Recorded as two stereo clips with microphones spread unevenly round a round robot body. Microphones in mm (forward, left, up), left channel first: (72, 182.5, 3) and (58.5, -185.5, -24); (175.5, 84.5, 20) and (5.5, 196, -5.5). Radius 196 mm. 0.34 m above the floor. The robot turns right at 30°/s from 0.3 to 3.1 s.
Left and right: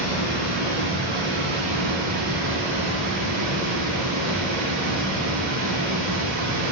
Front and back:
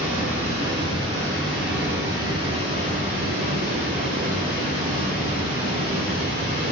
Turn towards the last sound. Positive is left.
turn(degrees=-60)